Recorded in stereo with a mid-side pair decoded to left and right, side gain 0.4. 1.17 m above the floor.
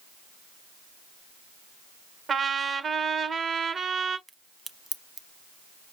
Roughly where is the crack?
Ahead right.